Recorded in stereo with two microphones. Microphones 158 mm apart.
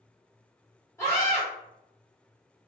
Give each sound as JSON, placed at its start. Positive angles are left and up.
{"t": 1.0, "sound": "a scream", "side_deg": 20, "distance_m": 1.4}